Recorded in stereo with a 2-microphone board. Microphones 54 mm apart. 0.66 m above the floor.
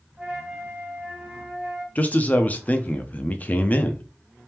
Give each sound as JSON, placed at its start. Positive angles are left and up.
{"t": 0.2, "sound": "a flute", "side_deg": -15, "distance_m": 1.9}
{"t": 1.9, "sound": "a man speaking", "side_deg": 30, "distance_m": 0.6}